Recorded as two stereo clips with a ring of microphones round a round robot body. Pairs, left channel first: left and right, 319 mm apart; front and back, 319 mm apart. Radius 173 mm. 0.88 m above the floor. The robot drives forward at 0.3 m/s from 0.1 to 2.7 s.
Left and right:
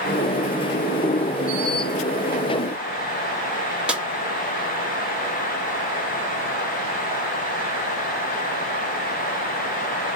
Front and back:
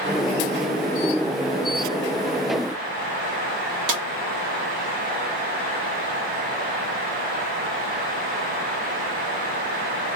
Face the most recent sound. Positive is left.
turn(degrees=-175)